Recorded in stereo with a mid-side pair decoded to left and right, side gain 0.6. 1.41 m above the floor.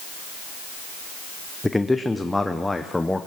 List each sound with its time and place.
1.6 s a man speaking: 10° left, 0.8 m